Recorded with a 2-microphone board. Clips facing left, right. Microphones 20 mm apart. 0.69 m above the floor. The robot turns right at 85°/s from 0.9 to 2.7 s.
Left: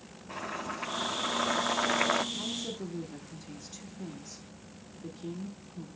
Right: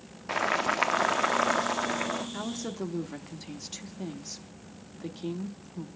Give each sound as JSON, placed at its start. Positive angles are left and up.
{"t": 0.3, "sound": "boiling", "azimuth_deg": -75, "distance_m": 0.7}
{"t": 2.3, "sound": "a woman speaking", "azimuth_deg": -75, "distance_m": 1.1}